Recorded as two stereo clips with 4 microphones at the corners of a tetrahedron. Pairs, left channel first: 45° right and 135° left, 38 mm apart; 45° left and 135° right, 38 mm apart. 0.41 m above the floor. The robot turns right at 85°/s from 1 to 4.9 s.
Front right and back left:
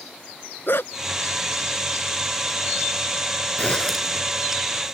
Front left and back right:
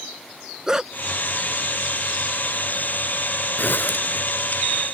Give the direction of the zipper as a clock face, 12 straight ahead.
12 o'clock.